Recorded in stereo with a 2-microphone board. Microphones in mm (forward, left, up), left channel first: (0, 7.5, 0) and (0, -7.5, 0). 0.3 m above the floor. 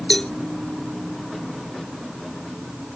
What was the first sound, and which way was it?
A cowbell, 55° left (ahead or behind).